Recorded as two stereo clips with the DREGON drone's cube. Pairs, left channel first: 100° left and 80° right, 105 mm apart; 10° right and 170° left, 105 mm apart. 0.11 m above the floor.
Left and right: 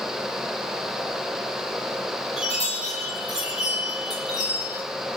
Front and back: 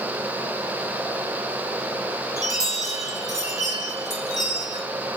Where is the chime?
120° left, 3.5 m.